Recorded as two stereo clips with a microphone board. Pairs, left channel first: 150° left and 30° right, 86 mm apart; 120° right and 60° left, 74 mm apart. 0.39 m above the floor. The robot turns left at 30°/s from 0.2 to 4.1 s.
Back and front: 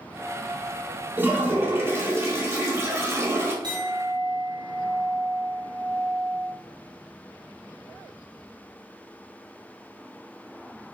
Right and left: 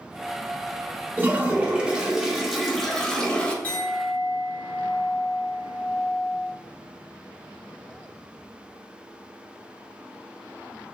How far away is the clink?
About 1.2 m.